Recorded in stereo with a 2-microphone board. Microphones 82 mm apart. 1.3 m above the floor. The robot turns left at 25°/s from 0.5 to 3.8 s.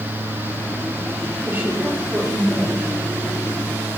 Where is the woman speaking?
155° right, 3.5 m; by 2.9 s 170° left, 3.5 m.